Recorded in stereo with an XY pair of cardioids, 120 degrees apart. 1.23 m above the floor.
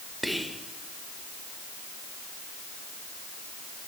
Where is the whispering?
Straight ahead, 1.1 m.